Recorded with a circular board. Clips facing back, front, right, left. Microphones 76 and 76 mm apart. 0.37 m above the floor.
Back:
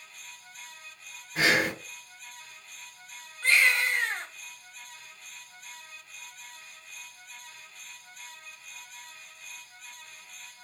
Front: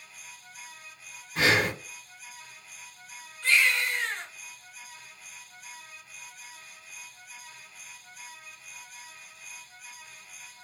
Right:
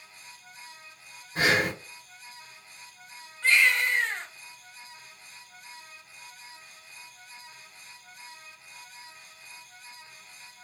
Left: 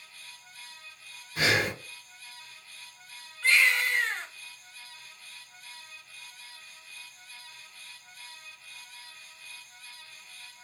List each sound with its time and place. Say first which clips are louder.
1.4 s breathing: front 1 dB, right 2 dB; 100° right, 2 m
3.4 s a baby crying: back 1 dB, right 1 dB; 150° right, 1.2 m